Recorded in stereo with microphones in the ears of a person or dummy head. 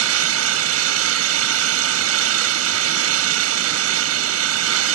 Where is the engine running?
75° right (ahead or behind).